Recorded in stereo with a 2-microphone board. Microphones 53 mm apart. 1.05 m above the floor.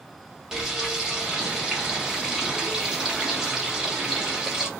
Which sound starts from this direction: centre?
Frying, at 0.5 s.